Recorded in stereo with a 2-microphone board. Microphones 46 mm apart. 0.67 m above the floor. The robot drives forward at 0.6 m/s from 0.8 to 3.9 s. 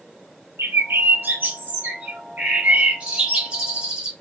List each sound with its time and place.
0.6 s a bird: 65° right (ahead or behind), 0.8 m; by 4.1 s 20° right (ahead or behind), 2.5 m